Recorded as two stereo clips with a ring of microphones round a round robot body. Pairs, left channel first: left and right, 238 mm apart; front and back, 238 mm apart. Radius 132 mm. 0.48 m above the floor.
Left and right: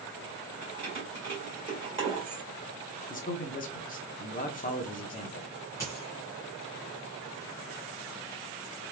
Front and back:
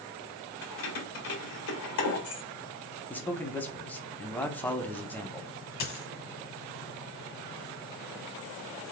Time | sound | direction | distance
0.6 | keys jangling | 20° right | 1.5 m
3.1 | a man speaking | 80° left | 0.8 m
5.8 | a dropped coin | 10° left | 1.0 m